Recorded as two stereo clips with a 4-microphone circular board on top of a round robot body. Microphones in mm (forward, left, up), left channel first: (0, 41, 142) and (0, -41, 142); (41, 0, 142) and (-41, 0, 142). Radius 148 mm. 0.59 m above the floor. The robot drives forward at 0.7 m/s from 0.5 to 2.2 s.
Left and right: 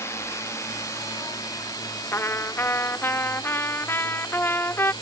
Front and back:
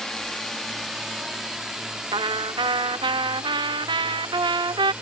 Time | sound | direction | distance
0.0 | a drone | 80° left | ?
2.1 | a trumpet | 150° left | ?